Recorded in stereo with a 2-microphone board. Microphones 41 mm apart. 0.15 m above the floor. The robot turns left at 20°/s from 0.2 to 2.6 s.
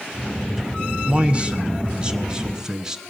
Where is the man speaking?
120° right, 1.2 m; by 3.0 s 155° right, 1.2 m.